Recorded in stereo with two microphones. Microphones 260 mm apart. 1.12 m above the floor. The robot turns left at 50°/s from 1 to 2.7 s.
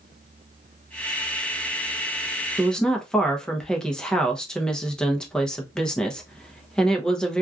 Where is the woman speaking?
5° right (ahead or behind), 0.7 m; by 7.4 s 5° left (ahead or behind), 0.7 m.